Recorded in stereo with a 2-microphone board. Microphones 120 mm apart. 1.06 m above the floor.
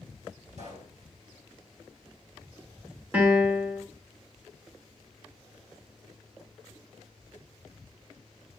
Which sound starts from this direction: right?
A pop, at 0.5 s.